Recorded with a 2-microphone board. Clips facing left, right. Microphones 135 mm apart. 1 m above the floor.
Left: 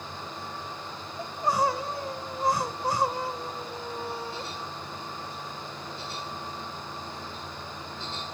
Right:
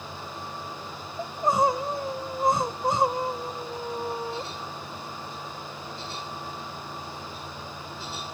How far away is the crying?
About 0.5 m.